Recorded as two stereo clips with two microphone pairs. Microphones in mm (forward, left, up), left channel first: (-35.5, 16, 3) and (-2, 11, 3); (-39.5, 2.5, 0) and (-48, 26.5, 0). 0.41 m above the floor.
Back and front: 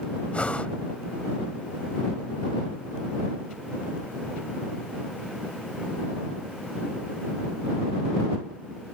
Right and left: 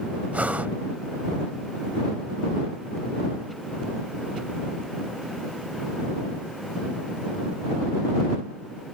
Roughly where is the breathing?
Behind left.